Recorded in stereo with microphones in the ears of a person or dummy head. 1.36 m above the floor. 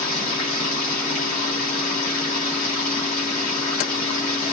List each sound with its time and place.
0.0 s running water: 45° left (ahead or behind), 9.5 m